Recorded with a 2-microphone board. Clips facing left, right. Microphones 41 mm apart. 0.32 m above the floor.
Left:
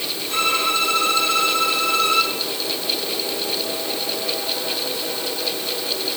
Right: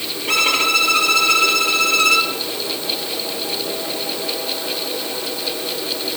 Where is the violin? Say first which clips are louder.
Right 4 dB; 85° right, 3.5 m.